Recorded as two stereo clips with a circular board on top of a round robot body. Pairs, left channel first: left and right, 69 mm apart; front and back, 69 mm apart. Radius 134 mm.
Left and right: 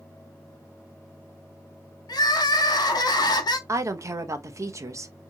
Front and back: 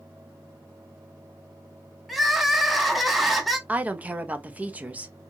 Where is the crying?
90° left, 0.8 m.